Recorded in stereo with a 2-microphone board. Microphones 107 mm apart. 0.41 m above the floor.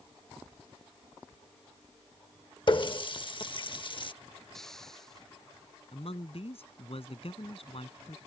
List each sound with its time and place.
2.7 s a running tap: 50° left (ahead or behind)
4.5 s a hiss: 5° left (ahead or behind)
5.9 s a man speaking: 65° left (ahead or behind)